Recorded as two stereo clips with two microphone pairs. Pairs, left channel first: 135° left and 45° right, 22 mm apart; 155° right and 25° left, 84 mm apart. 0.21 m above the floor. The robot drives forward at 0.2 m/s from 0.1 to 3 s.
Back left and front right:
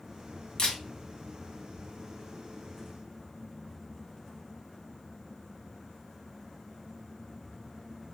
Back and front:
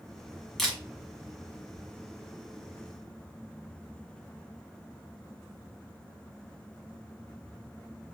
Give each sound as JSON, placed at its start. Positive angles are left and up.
{"t": 0.6, "sound": "a camera shutter", "azimuth_deg": 120, "distance_m": 1.4}